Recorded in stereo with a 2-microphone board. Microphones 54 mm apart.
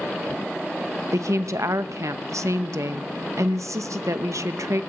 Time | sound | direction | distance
1.1 | a woman speaking | 70° right (ahead or behind) | 0.8 m